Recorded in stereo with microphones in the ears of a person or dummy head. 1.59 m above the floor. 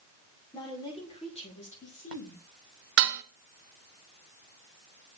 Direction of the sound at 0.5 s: 15° left (ahead or behind).